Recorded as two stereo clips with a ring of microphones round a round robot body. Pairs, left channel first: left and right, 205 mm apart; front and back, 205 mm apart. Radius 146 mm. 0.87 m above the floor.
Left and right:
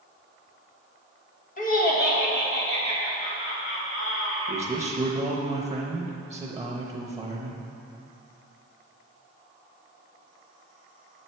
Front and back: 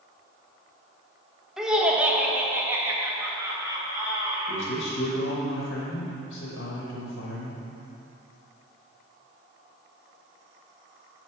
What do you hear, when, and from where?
1.6 s laughter: 95° left, 1.1 m; by 4.8 s 105° left, 2.5 m
4.5 s a man speaking: 15° right, 0.9 m